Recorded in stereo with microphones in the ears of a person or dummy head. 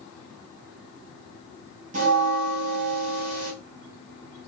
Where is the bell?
45° right (ahead or behind), 0.9 m.